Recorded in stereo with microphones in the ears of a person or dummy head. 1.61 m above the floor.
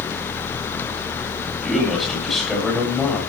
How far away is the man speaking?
About 9 m.